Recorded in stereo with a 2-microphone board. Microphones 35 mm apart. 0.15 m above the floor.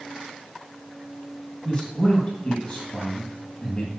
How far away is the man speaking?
About 3.5 m.